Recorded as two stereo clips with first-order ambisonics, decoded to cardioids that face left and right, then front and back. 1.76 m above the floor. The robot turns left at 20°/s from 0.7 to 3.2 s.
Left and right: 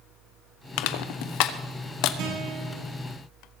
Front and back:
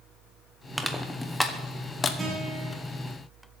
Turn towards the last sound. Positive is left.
turn(degrees=-125)